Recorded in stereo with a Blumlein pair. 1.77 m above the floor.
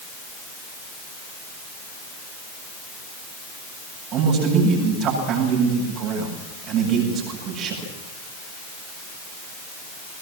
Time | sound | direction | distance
4.1 | a man speaking | 35° right | 9 m